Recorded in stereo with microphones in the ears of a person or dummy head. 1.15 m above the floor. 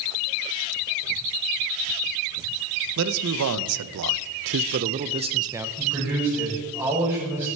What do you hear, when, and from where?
3.0 s a man speaking: 70° right (ahead or behind), 1.1 m; by 5.7 s 10° right (ahead or behind), 0.8 m
5.8 s a man speaking: 10° right (ahead or behind), 6 m